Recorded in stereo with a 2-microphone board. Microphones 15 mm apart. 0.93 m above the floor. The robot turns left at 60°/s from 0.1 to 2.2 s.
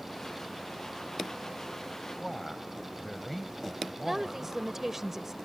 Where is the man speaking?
20° left (ahead or behind).